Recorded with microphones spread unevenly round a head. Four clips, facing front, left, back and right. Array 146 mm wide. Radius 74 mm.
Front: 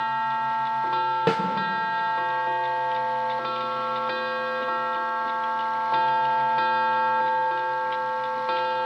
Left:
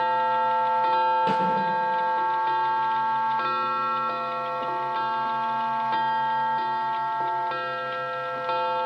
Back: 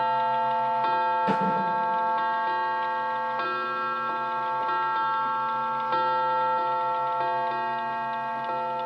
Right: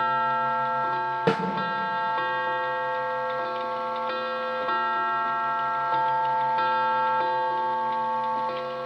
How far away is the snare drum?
About 4.5 m.